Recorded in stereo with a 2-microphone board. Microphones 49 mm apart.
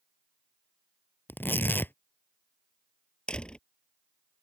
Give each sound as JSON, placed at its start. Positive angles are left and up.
{"t": 1.3, "sound": "tearing paper", "side_deg": 45}
{"t": 3.3, "sound": "a door slam", "side_deg": 20}